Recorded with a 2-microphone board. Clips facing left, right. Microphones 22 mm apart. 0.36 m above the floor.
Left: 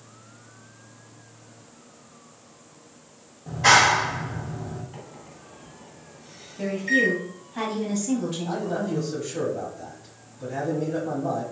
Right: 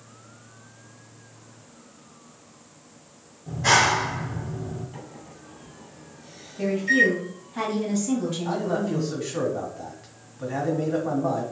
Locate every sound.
3.5 s a clap: 45° left (ahead or behind), 1.1 m
4.9 s a microwave: 10° left (ahead or behind), 2.0 m
6.6 s a woman speaking: centre (ahead or behind), 2.0 m
8.4 s a man speaking: 65° right (ahead or behind), 2 m